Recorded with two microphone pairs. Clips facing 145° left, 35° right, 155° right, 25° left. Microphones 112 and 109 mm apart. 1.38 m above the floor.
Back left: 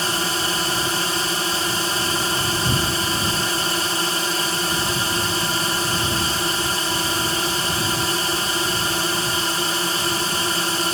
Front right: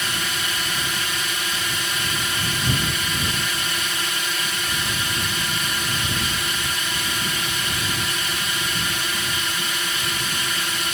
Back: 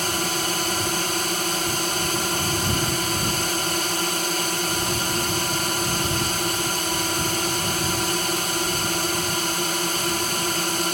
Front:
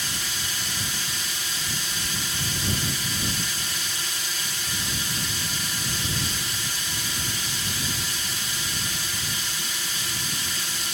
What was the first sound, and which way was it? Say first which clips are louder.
A drone: back left 5 dB, back 10 dB; 170° right.